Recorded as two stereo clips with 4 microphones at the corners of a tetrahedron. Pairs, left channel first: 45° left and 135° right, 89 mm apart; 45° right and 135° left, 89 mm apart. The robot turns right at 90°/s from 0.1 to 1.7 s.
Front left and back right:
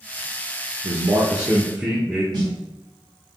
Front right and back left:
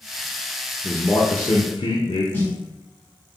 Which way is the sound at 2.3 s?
110° right.